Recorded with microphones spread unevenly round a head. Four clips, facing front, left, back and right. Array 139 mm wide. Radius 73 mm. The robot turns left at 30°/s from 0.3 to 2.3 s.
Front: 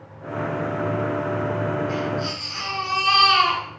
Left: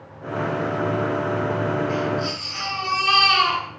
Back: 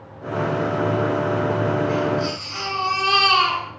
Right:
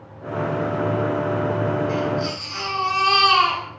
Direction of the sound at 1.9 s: 100° right.